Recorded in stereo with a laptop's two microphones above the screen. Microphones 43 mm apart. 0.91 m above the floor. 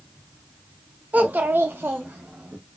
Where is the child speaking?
40° right (ahead or behind), 0.8 m; by 2.6 s 45° right (ahead or behind), 1.0 m.